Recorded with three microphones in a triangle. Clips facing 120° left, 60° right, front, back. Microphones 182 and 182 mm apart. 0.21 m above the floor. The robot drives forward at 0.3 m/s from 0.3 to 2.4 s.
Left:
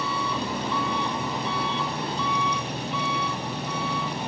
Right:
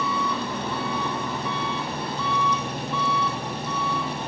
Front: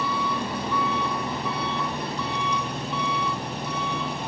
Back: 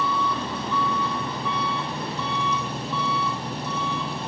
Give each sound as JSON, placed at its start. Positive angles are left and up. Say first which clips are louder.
{"t": 0.0, "sound": "an engine running", "louder": "right 2 dB, back 1 dB", "azimuth_deg": -80, "distance_m": 5.5}